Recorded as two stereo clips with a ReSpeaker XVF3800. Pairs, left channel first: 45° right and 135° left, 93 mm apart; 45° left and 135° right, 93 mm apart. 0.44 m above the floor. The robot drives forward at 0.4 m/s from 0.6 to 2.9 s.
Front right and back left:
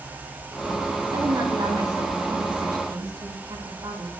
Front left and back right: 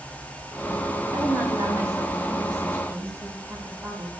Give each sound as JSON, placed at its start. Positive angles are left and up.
{"t": 1.1, "sound": "a woman speaking", "azimuth_deg": 170, "distance_m": 3.0}